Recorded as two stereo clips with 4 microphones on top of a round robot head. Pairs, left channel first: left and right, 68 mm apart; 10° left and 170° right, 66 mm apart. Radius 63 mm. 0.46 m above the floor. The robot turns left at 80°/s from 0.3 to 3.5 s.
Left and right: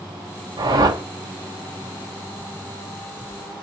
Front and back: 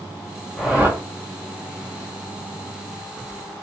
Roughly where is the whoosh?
Right.